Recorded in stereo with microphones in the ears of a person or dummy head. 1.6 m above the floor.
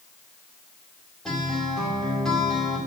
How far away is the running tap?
No running tap in this recording.